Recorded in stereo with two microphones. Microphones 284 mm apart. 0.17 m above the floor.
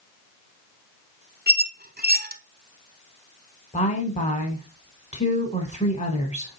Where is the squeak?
35° right (ahead or behind), 0.5 m.